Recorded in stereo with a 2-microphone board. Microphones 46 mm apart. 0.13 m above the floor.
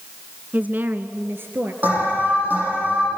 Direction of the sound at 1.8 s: 40° right (ahead or behind).